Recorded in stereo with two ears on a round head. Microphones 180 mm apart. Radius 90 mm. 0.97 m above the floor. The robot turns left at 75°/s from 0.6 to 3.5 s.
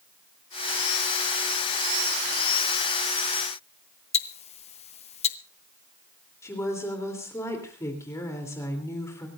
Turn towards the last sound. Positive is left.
turn(degrees=15)  # may be behind; listen again after turning